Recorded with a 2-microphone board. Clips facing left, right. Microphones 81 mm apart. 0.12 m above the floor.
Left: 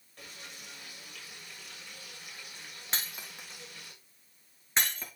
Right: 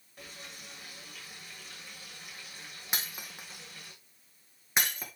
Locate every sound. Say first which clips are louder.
0.2 s frying: right 1 dB; 5° right (ahead or behind), 6.5 m
2.9 s breaking glass: right 1 dB; 10° right (ahead or behind), 2.0 m